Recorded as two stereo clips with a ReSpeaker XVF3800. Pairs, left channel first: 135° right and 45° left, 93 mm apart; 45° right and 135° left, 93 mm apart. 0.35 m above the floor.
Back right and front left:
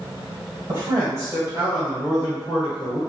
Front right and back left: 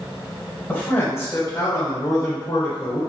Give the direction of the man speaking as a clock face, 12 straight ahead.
11 o'clock.